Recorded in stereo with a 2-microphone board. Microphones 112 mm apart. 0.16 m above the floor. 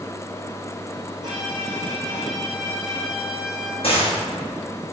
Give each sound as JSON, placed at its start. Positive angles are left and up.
{"t": 1.2, "sound": "a violin", "side_deg": -40, "distance_m": 3.5}
{"t": 3.8, "sound": "a gunshot", "side_deg": 55, "distance_m": 4.0}